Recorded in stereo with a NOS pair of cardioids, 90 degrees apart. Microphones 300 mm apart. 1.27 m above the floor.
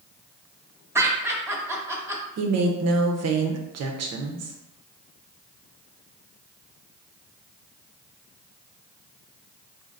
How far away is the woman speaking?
About 0.9 m.